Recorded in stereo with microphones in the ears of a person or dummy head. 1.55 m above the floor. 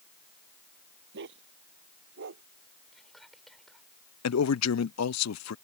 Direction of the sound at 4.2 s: 80° left.